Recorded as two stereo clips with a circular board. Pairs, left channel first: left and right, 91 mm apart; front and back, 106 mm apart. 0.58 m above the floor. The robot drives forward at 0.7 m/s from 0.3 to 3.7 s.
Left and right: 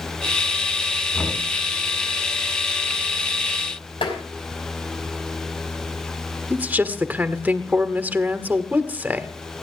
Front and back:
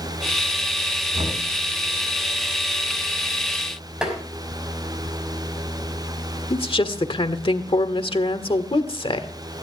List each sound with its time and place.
1.1 s knocking: 165° left, 4.5 m
4.0 s tapping: 95° left, 5 m
6.5 s a woman speaking: 20° right, 1.5 m